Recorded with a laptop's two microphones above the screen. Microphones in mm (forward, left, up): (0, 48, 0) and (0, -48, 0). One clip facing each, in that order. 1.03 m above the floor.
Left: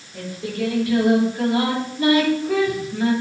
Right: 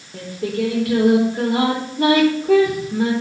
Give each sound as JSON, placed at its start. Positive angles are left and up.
{"t": 0.1, "sound": "singing", "side_deg": -75, "distance_m": 4.0}